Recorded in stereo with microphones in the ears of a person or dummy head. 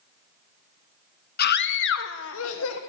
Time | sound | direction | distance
1.4 | a scream | 50° left (ahead or behind) | 0.9 m